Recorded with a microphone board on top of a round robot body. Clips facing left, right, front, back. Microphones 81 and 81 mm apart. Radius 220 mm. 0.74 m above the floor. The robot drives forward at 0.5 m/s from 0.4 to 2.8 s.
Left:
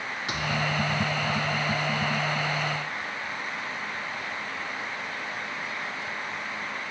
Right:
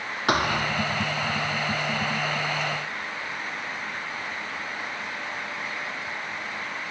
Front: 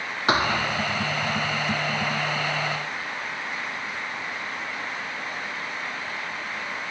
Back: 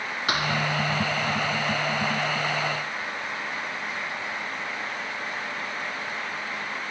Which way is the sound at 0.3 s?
60° right.